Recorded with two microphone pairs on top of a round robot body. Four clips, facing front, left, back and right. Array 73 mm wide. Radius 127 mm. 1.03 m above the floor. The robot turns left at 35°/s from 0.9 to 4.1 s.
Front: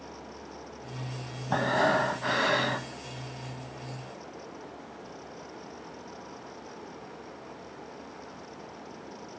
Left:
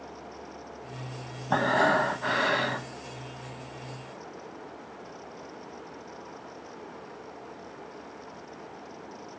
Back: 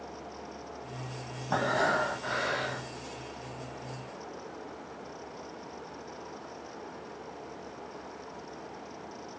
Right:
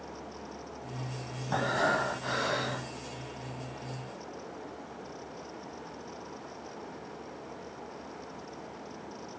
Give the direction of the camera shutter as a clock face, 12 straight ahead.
I don't hear a camera shutter.